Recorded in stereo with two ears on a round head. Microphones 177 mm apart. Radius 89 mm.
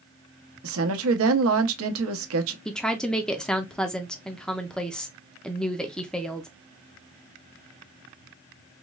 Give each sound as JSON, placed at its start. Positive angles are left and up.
{"t": 0.6, "sound": "a woman speaking", "side_deg": -80, "distance_m": 0.8}
{"t": 2.6, "sound": "a woman speaking", "side_deg": 5, "distance_m": 0.5}